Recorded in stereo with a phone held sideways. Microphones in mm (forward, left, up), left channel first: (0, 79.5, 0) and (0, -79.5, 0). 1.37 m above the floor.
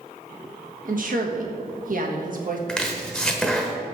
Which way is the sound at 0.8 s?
60° right (ahead or behind).